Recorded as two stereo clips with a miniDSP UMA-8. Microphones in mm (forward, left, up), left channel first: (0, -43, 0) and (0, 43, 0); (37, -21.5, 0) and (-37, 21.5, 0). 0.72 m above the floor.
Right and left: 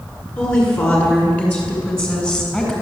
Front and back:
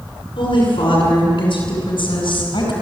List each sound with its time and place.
0.4 s a woman speaking: 20° right, 10 m; by 2.7 s 10° right, 6.5 m